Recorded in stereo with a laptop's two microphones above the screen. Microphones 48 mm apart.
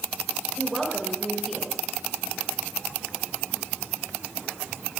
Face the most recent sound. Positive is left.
turn(degrees=0)  # may be behind; listen again after turning